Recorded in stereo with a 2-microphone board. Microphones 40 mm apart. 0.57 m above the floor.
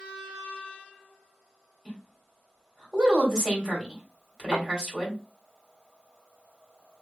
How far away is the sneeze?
I don't hear a sneeze.